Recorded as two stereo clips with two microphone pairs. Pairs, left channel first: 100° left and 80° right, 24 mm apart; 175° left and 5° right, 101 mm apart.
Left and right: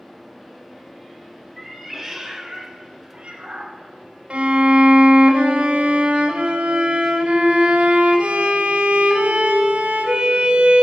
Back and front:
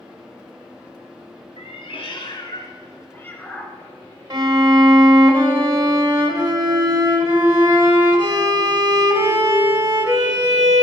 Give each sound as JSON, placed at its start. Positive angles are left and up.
{"t": 1.6, "sound": "a cat meowing", "azimuth_deg": -170, "distance_m": 1.2}
{"t": 4.3, "sound": "a violin", "azimuth_deg": -55, "distance_m": 0.9}